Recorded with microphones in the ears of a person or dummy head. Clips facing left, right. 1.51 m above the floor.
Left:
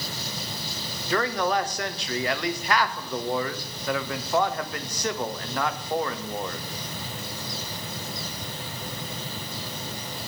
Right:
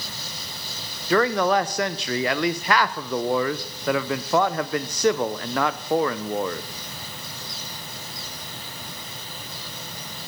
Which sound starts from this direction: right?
A man speaking, at 1.1 s.